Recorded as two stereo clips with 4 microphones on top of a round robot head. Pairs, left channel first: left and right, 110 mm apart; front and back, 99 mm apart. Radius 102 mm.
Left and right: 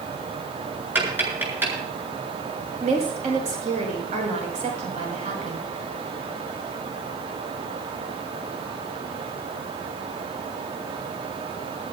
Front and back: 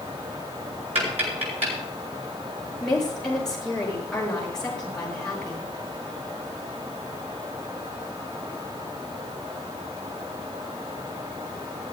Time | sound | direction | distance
0.9 | tapping | 160° right | 7.5 m
2.8 | a woman speaking | 85° right | 5 m